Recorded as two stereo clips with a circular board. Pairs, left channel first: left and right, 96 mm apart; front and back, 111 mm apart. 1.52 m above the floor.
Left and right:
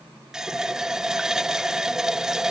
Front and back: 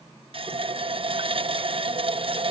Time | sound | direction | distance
0.3 | a running tap | 170° right | ?